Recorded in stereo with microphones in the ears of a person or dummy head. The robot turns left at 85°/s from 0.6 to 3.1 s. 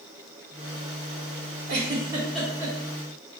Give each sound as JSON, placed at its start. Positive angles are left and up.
{"t": 1.7, "sound": "a giggle", "side_deg": -55, "distance_m": 1.1}